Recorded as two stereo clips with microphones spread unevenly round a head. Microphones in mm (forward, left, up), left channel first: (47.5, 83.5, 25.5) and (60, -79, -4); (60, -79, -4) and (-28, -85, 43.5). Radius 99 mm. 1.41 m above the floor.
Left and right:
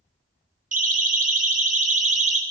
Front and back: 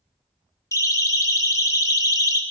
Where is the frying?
I don't hear frying.